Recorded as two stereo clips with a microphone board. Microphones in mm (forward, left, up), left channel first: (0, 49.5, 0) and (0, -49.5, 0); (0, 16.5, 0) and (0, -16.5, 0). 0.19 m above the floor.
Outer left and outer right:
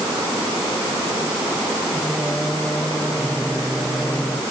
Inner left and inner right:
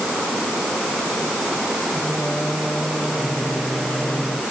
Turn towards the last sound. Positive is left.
turn(degrees=10)  # may be behind; listen again after turning